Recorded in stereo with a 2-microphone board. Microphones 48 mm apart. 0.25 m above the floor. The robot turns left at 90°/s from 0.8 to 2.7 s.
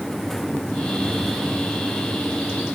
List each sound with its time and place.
Only background noise.